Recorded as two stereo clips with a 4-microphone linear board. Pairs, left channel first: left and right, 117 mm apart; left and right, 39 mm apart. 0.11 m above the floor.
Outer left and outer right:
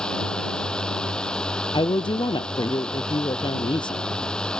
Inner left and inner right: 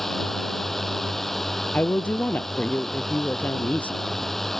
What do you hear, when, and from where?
0.0 s a drone: 5° left (ahead or behind)
1.7 s a woman speaking: 40° left (ahead or behind)